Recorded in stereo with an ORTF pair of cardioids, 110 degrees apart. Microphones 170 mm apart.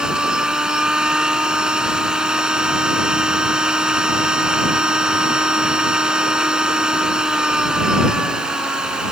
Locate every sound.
0.0 s a machine running: 5° right